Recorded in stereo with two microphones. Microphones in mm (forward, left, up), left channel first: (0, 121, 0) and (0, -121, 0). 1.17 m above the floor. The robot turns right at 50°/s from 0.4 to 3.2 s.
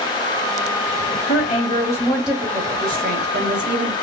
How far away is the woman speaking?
About 1.5 m.